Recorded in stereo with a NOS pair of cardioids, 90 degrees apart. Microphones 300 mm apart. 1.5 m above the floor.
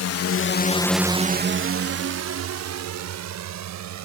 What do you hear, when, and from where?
0.0 s a drone: 65° left; by 4.0 s 70° right